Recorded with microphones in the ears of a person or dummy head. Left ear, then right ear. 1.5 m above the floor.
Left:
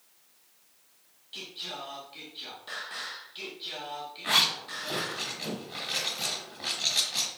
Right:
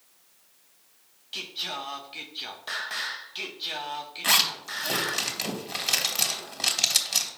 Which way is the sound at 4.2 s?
85° right.